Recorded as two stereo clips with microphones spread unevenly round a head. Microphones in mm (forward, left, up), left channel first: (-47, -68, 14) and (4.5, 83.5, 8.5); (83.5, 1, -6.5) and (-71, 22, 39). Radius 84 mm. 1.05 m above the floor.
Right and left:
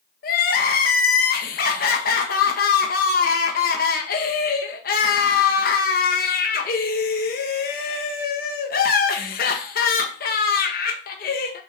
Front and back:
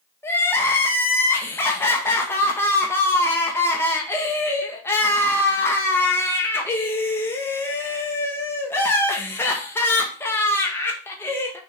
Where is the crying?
75° right, 1.1 m.